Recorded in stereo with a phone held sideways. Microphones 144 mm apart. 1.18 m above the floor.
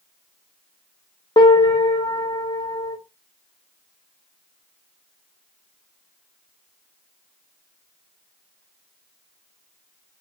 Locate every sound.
1.4 s a piano: 35° left (ahead or behind), 0.7 m